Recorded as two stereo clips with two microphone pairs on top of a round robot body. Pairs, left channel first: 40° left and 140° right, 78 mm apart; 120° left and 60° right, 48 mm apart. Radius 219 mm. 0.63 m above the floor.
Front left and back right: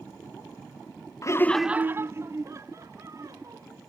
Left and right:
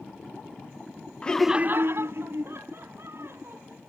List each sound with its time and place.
1.2 s laughter: 55° left; by 3.8 s 90° right